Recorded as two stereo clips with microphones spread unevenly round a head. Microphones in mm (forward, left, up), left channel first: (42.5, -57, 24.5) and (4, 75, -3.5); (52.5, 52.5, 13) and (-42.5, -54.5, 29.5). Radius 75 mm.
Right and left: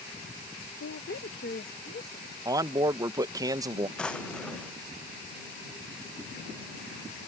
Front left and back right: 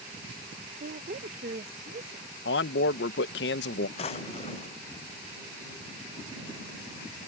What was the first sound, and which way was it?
A woman speaking, 95° right.